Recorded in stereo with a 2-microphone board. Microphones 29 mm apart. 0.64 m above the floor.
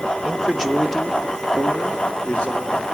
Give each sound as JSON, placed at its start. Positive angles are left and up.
{"t": 0.2, "sound": "a man speaking", "side_deg": -20, "distance_m": 0.8}